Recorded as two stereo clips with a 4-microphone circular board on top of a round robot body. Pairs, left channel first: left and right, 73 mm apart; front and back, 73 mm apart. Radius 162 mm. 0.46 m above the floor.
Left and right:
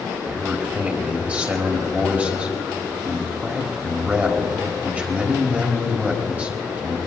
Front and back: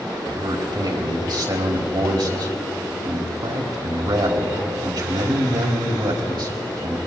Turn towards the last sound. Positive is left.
turn(degrees=-160)